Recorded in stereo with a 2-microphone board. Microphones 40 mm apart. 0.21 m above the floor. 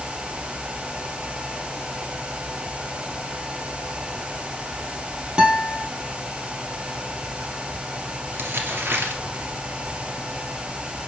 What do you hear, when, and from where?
5.4 s a guitar: 25° right (ahead or behind), 3 m
8.3 s crumpling: 60° right (ahead or behind), 2.5 m